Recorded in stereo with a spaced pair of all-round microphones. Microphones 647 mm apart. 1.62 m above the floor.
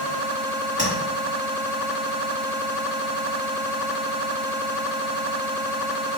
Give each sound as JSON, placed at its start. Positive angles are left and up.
{"t": 0.8, "sound": "tapping", "side_deg": -30, "distance_m": 1.6}